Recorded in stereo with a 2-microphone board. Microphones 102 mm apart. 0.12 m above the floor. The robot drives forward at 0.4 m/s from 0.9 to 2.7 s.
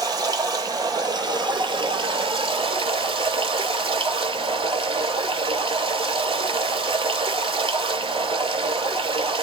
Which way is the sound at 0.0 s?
40° right (ahead or behind).